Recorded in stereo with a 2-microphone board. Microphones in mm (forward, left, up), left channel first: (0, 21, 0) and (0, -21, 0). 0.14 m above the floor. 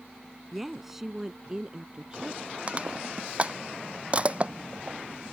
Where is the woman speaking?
Centre (ahead or behind); by 2.6 s 25° right (ahead or behind).